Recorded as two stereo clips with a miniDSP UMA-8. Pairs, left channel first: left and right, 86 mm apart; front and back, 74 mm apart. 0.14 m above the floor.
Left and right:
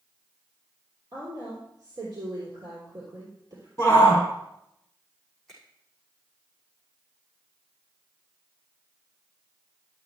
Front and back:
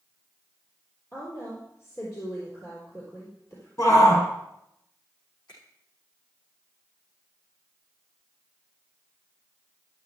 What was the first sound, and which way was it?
A woman speaking, 50° right.